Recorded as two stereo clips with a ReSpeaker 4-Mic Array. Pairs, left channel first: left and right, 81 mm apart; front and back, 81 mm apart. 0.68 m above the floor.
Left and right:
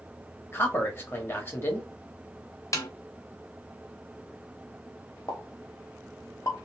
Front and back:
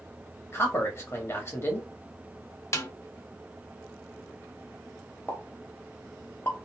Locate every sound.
0.5 s a man speaking: 40° left, 1.2 m
2.7 s a snare drum: 45° left, 0.7 m
5.3 s a pop: 55° left, 0.9 m